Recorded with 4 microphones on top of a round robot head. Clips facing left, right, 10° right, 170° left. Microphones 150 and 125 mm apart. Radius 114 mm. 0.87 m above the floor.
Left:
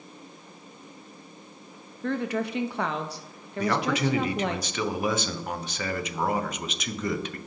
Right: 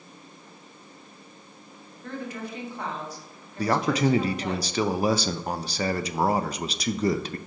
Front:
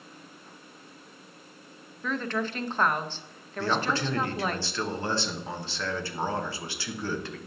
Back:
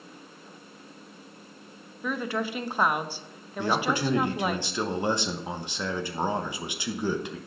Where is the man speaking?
125° right, 0.7 m.